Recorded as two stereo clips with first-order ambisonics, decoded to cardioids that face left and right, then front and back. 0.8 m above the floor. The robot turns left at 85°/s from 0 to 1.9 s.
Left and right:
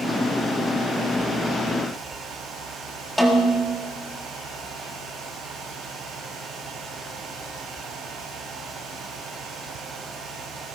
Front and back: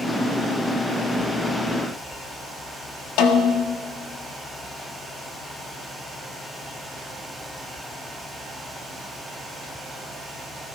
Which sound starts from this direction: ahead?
A snare drum, at 3.2 s.